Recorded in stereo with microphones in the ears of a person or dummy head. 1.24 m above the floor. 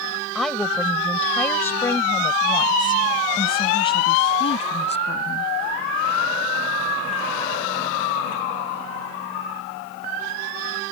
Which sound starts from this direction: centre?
A woman speaking, at 0.3 s.